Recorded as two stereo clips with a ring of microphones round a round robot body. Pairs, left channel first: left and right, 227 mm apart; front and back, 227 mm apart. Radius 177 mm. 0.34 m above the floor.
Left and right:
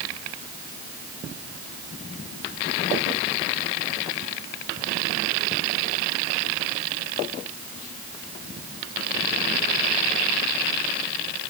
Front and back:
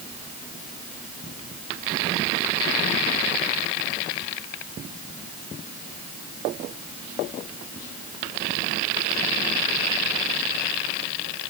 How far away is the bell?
No bell in this recording.